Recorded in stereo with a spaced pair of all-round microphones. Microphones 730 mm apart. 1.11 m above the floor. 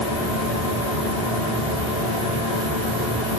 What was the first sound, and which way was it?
A machine running, 40° left (ahead or behind).